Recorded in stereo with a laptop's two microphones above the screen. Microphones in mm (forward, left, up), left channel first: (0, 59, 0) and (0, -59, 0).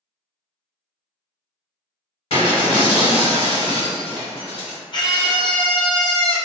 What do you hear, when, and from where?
2.3 s breaking glass: 65° left (ahead or behind), 1.7 m
4.9 s a scream: 40° left (ahead or behind), 0.6 m